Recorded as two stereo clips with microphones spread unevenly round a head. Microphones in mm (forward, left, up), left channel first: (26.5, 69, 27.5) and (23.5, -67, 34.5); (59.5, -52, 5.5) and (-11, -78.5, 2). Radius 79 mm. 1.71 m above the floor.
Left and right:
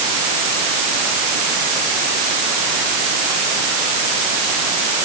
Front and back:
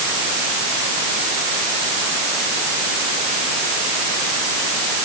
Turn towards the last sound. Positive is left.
No sound to turn to.